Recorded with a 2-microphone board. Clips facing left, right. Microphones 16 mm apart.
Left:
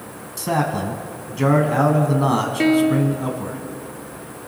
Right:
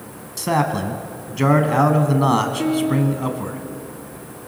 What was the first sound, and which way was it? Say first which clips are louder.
A man speaking: right 1 dB; 15° right (ahead or behind).